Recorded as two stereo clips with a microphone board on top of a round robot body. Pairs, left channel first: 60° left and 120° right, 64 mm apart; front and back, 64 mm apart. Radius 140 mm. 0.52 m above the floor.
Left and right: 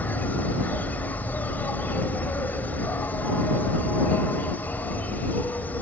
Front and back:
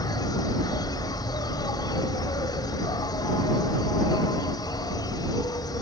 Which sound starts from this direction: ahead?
An insect, at 0.0 s.